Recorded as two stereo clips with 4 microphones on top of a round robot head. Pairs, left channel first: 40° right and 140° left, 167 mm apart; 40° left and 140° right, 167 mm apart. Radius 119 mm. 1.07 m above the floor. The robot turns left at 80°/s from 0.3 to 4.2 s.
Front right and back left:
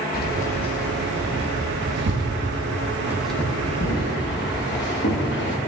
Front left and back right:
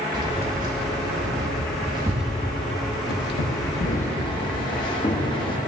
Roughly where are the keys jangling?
Right.